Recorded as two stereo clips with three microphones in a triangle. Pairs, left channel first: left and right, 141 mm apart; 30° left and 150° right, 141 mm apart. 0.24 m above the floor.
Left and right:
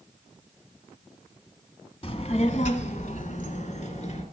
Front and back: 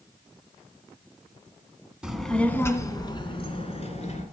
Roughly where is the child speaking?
Behind left.